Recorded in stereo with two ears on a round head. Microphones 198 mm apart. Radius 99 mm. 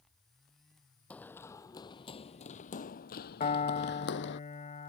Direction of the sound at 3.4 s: 30° left (ahead or behind).